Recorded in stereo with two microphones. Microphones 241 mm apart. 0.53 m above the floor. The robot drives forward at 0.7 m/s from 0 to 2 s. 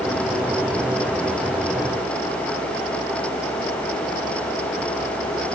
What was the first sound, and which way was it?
Only background noise.